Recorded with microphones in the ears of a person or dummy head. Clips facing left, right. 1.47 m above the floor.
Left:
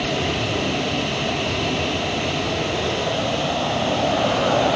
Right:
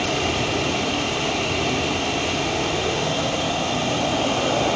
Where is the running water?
15° left (ahead or behind), 4.5 m.